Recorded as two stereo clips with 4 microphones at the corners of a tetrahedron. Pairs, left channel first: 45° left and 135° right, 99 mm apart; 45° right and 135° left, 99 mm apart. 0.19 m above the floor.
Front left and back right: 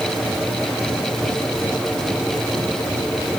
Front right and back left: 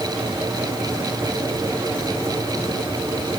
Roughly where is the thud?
I don't hear a thud.